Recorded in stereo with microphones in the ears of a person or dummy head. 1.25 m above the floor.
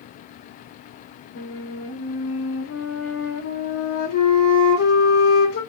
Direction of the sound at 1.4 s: 70° left (ahead or behind).